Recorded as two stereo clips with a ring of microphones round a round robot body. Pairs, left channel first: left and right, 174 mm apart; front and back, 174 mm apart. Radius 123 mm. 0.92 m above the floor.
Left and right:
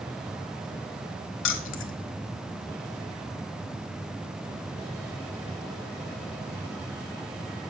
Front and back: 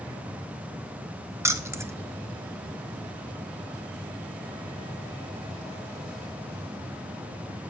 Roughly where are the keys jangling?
Left.